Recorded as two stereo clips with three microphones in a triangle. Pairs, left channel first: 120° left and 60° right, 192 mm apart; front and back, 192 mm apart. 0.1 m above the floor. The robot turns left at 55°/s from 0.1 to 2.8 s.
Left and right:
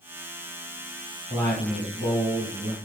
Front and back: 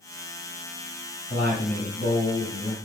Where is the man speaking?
50° left, 1.7 m; by 2.8 s 30° right, 1.7 m.